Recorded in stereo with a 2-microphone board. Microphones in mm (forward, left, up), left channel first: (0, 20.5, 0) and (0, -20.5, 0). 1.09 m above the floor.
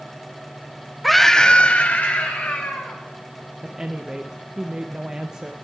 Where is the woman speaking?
20° right (ahead or behind), 0.6 m.